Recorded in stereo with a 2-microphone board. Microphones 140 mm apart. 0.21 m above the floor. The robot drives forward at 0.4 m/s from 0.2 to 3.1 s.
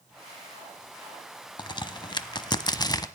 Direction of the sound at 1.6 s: 35° left (ahead or behind).